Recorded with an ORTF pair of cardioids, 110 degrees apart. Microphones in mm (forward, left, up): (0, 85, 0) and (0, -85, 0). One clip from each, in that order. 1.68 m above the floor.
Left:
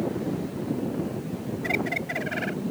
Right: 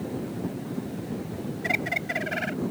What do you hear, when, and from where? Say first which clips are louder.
1.6 s a bird: right 1 dB; 15° right